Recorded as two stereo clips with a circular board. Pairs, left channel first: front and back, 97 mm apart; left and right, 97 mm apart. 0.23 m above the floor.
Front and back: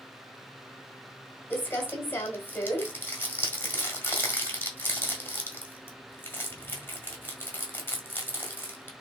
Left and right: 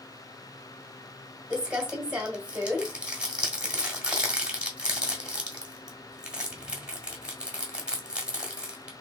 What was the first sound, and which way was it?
Crumpling, 25° right.